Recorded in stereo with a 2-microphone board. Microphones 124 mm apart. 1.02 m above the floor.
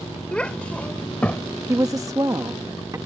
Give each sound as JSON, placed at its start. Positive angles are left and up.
{"t": 0.3, "sound": "a child speaking", "side_deg": 10}
{"t": 1.7, "sound": "a woman speaking", "side_deg": -25}